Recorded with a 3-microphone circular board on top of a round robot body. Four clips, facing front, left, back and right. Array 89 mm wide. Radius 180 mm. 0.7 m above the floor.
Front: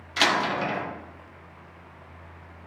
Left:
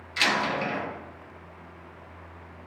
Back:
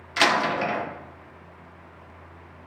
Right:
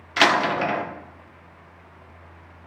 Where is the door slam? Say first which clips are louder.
Right 7 dB, back 2 dB; 100° right, 1.8 m.